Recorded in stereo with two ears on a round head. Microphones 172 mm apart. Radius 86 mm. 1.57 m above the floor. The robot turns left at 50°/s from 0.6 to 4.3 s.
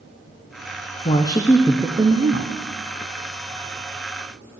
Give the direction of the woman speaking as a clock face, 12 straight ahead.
11 o'clock.